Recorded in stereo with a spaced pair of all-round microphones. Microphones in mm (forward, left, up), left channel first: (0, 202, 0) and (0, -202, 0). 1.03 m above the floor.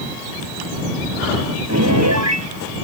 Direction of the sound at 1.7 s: 45° right (ahead or behind).